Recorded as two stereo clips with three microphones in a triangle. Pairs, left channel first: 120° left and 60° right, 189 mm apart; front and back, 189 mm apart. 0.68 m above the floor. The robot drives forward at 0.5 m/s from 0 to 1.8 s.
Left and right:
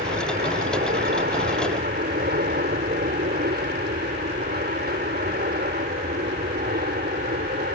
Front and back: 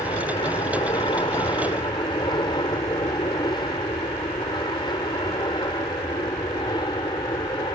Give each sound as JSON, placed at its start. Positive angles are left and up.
{"t": 0.0, "sound": "an aircraft", "azimuth_deg": -60}